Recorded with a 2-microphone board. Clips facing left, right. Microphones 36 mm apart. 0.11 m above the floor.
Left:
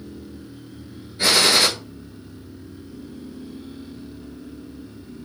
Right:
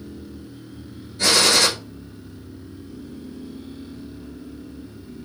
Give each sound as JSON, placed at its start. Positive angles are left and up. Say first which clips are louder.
{"t": 1.2, "sound": "a gunshot", "louder": "even", "side_deg": 20, "distance_m": 1.3}